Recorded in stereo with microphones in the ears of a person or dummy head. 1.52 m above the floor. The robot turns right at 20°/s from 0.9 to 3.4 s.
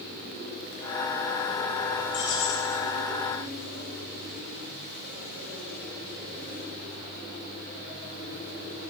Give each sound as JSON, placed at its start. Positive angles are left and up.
{"t": 2.1, "sound": "keys jangling", "side_deg": 40, "distance_m": 4.5}